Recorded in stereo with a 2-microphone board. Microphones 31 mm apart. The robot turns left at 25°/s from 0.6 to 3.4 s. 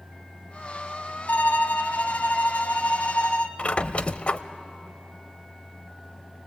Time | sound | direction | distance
1.3 | a violin | 105° left | 0.8 m
3.6 | a squeak | 45° left (ahead or behind) | 0.5 m